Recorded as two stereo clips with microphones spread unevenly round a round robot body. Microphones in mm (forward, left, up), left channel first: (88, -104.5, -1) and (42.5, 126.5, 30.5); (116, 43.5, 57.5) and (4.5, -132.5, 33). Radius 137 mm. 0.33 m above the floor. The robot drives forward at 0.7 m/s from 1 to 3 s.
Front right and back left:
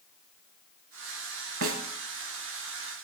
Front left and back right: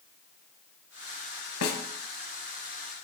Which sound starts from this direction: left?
A snare drum, at 1.6 s.